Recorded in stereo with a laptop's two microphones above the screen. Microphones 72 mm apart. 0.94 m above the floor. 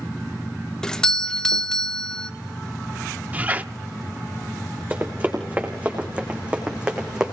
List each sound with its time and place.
0.8 s a doorbell: 10° left (ahead or behind), 0.7 m
3.3 s a squeak: 20° right (ahead or behind), 0.6 m
4.9 s running footsteps: 25° right (ahead or behind), 5 m; by 7.3 s 10° right (ahead or behind), 4 m